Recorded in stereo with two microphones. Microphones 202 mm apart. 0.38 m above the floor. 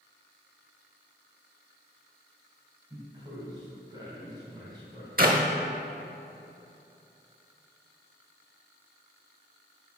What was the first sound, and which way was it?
A man speaking, 20° right (ahead or behind).